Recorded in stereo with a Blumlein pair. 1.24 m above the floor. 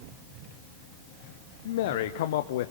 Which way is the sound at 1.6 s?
55° left.